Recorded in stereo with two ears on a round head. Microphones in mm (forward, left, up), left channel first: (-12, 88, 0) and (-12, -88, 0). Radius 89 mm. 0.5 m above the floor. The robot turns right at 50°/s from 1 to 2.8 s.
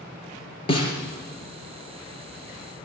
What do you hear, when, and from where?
0.7 s a snare drum: 30° left (ahead or behind), 3 m